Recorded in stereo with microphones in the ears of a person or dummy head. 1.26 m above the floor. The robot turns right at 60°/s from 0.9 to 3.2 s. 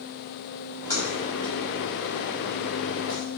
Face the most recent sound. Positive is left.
turn(degrees=-55)  # may be behind; listen again after turning